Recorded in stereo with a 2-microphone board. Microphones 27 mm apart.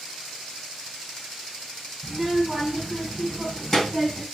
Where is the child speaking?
5° left (ahead or behind), 4 m; by 4.2 s 20° left (ahead or behind), 3.5 m.